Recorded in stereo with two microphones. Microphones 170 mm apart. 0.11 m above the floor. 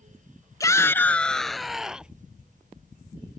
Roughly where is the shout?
Centre.